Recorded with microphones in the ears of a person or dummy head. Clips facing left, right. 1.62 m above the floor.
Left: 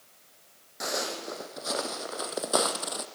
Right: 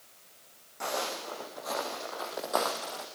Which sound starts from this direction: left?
Footsteps, at 0.8 s.